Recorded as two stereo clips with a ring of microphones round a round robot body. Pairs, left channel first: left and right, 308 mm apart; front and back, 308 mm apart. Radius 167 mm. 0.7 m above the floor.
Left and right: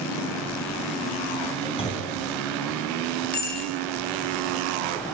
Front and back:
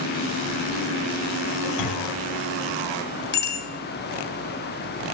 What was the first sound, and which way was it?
A clunk, 15° left.